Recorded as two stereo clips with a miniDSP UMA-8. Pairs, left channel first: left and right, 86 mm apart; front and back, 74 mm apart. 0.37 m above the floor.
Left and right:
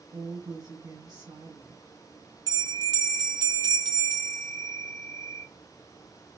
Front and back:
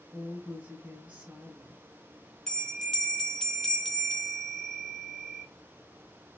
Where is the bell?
75° right, 0.9 m.